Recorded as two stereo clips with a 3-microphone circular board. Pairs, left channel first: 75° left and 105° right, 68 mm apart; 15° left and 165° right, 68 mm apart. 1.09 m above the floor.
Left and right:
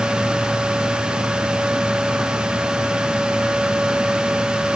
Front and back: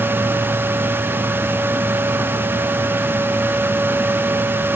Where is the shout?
I don't hear a shout.